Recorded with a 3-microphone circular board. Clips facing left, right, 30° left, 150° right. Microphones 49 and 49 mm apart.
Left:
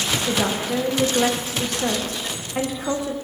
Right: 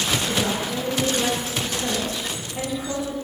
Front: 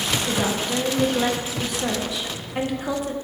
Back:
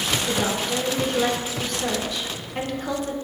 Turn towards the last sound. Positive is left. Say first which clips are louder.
# left 2 dB, even
turn(degrees=110)